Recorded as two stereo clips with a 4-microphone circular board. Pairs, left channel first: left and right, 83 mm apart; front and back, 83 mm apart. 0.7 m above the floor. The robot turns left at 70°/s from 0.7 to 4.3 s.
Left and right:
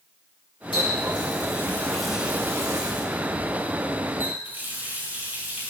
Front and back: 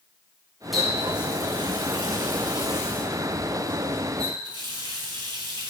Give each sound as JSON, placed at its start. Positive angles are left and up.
{"t": 0.7, "sound": "a running tap", "azimuth_deg": 95, "distance_m": 4.5}